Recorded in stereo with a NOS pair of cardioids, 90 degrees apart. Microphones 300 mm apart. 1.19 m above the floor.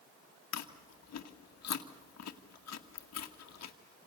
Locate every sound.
0.5 s chewing: 60° left, 2 m